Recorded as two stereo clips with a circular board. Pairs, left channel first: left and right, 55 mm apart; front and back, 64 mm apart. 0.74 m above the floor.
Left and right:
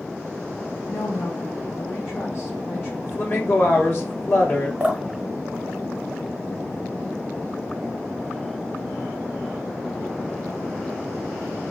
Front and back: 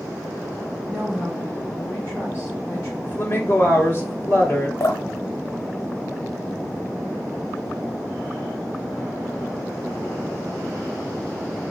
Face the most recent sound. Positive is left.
turn(degrees=-20)